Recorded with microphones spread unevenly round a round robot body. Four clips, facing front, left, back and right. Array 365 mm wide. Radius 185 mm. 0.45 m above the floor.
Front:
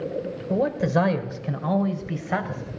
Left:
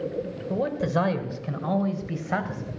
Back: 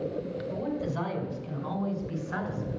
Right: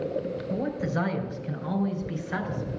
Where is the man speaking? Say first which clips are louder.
Left 5 dB, front 11 dB; 25° left, 2.5 m; by 2.6 s 45° left, 3.5 m.